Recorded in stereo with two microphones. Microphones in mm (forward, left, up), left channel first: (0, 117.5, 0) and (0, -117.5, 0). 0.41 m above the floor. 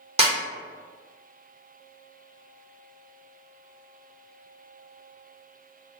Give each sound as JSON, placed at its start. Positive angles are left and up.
{"t": 0.2, "sound": "a snare drum", "side_deg": -25, "distance_m": 1.0}